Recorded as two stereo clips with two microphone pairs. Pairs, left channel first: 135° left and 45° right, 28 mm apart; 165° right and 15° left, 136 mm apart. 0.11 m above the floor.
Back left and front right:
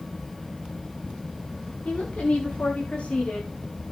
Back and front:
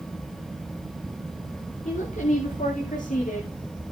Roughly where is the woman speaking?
Behind.